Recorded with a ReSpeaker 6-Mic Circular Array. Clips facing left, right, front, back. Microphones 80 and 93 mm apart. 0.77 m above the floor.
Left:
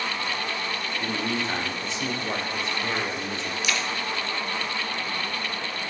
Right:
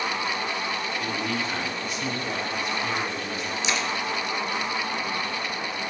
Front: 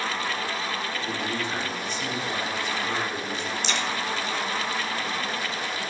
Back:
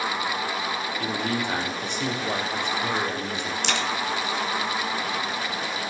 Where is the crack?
155° right, 1.5 m.